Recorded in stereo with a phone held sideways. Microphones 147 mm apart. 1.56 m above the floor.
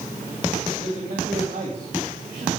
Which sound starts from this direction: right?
A man speaking, at 0.8 s.